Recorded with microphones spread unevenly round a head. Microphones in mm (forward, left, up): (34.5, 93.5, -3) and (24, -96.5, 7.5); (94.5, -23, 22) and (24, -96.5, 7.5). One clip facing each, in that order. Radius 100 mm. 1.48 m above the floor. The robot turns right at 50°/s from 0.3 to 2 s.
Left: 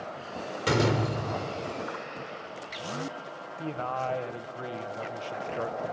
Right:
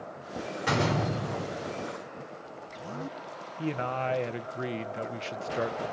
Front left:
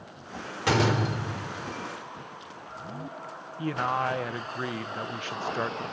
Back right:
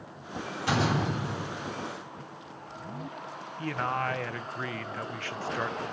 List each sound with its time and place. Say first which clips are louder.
0.7 s a door slam: left 3 dB, front left 3 dB; 40° left, 4 m; by 1.8 s 95° left, 4 m
3.6 s a man speaking: right 2 dB, front left 3 dB; 25° right, 1.0 m